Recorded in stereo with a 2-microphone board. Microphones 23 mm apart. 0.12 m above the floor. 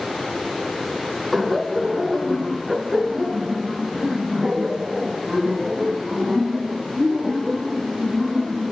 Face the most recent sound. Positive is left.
turn(degrees=-5)  # may be behind; listen again after turning